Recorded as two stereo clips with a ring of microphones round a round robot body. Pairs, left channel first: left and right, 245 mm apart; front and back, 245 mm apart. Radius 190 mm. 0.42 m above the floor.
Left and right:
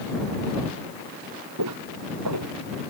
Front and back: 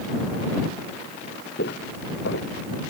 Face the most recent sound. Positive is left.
turn(degrees=-60)